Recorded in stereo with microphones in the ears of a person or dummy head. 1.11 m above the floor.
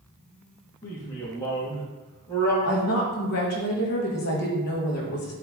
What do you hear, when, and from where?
0.8 s a man speaking: 20° left (ahead or behind), 1.6 m
2.6 s a woman speaking: 50° left (ahead or behind), 1.5 m